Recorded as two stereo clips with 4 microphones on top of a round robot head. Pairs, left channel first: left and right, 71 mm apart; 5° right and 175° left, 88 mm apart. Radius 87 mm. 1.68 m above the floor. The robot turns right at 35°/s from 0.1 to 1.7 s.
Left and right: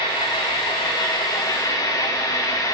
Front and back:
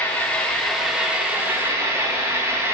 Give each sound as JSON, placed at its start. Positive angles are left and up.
{"t": 0.0, "sound": "an engine running", "azimuth_deg": 65, "distance_m": 1.7}